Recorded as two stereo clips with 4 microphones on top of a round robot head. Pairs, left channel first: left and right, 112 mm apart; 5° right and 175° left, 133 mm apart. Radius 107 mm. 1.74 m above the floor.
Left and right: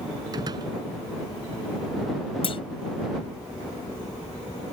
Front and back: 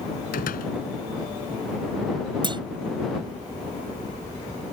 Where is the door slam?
25° right.